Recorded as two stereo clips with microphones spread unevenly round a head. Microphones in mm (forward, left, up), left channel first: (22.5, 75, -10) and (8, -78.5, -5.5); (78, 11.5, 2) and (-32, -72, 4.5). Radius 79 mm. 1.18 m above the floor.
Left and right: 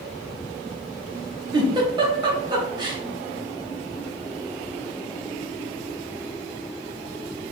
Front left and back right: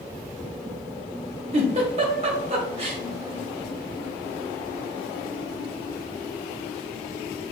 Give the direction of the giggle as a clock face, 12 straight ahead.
5 o'clock.